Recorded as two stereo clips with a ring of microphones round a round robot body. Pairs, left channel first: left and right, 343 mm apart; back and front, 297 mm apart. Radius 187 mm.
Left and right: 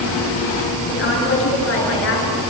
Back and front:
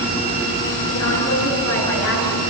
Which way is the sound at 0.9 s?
145° left.